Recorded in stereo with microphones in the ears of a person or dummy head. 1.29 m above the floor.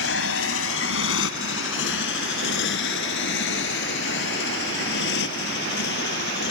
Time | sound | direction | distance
0.0 | a motorcycle | 70° left (ahead or behind) | ?